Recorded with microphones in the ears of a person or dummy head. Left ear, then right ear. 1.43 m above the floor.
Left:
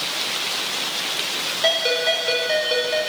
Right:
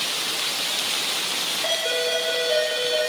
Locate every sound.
1.6 s a ringtone: 45° left (ahead or behind), 4 m